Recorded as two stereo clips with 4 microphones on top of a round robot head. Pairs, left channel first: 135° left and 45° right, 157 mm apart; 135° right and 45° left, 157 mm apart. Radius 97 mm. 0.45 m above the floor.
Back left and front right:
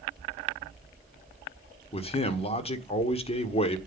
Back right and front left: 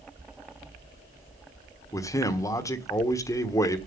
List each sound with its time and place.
1.9 s a man speaking: 165° left, 1.4 m